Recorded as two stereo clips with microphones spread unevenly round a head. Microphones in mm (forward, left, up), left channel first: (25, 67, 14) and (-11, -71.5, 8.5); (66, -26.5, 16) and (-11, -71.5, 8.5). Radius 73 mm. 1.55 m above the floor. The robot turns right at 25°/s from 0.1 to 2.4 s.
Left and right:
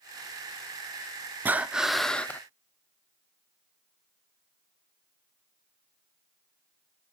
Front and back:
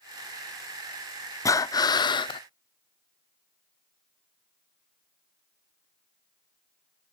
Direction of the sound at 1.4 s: 25° right.